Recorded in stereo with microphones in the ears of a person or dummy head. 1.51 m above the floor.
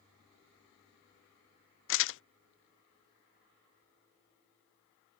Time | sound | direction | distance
1.9 | crumpling | 65° left (ahead or behind) | ?